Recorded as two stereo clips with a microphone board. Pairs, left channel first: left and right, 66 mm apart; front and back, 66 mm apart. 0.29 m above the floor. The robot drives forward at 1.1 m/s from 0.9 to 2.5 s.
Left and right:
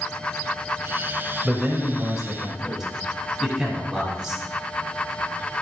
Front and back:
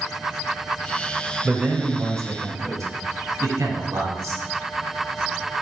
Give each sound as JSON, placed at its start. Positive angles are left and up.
{"t": 1.4, "sound": "a man speaking", "azimuth_deg": -140, "distance_m": 1.1}